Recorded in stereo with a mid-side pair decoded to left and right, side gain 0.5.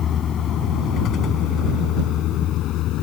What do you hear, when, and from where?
0.0 s a vehicle: 50° left; by 3.0 s 70° left